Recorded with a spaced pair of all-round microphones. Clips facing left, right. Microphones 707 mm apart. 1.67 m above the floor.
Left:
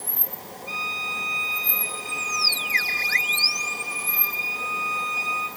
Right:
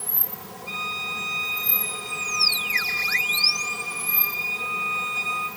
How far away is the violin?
About 4.5 m.